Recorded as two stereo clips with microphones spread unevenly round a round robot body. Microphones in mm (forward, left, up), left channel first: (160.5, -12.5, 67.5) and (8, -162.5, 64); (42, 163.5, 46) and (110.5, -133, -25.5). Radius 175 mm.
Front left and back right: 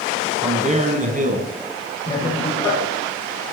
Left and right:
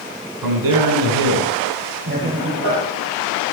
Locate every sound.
0.4 s a man speaking: 75° right, 4 m; by 1.5 s 85° right, 5 m
2.1 s laughter: 25° right, 9.5 m